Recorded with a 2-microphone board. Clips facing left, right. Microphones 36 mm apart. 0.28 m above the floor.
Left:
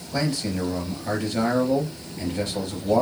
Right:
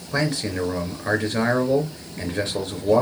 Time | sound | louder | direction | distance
0.1 | a man speaking | right 2 dB | 70° right (ahead or behind) | 3.5 m